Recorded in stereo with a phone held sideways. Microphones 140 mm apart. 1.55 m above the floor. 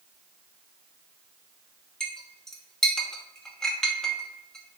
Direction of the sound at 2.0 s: 5° left (ahead or behind).